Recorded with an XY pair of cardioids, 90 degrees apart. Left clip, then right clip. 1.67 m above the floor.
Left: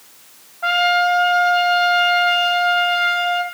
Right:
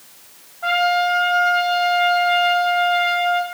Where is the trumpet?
30° left, 0.9 m.